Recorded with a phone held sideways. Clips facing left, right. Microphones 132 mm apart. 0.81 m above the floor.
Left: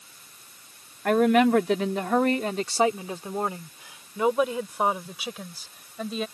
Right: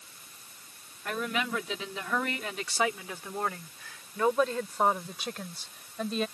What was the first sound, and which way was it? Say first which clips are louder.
A woman speaking: left 14 dB; 70° left (ahead or behind).